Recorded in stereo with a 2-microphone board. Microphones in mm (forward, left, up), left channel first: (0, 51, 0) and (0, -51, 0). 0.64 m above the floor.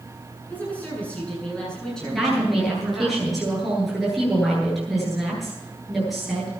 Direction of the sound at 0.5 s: 15° left (ahead or behind).